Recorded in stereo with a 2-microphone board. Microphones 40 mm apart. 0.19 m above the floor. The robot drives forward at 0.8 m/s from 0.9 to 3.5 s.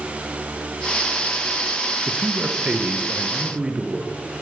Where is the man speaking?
30° right (ahead or behind), 3.5 m; by 4.1 s 25° right (ahead or behind), 4.5 m.